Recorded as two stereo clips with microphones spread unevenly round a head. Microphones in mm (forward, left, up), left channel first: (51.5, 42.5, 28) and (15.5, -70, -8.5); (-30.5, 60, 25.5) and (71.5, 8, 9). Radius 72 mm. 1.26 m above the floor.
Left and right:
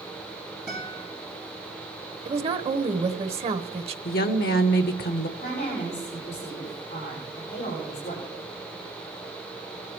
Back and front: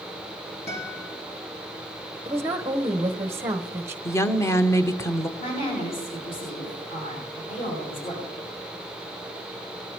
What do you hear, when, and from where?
0.7 s a guitar: 170° left, 5.5 m
2.2 s a woman speaking: 95° right, 1.1 m
4.0 s a woman speaking: 85° left, 0.9 m
5.4 s a woman speaking: 115° left, 7.5 m